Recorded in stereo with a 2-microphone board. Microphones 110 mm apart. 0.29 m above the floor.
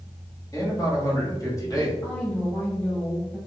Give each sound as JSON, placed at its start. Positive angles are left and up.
{"t": 0.5, "sound": "a man speaking", "side_deg": 30, "distance_m": 1.6}
{"t": 2.0, "sound": "a woman speaking", "side_deg": 10, "distance_m": 1.8}